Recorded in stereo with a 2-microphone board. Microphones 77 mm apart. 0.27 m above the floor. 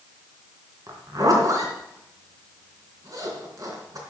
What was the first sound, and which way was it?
A zipper, 50° right (ahead or behind).